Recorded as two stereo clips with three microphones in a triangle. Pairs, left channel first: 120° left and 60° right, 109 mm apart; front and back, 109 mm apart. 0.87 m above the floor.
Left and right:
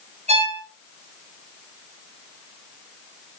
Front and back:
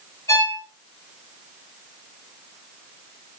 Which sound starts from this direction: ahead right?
A violin, at 0.3 s.